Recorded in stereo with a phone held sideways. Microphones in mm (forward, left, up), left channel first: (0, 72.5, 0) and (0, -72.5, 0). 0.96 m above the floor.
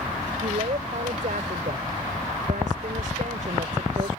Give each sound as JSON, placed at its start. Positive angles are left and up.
{"t": 0.4, "sound": "a woman speaking", "side_deg": -65}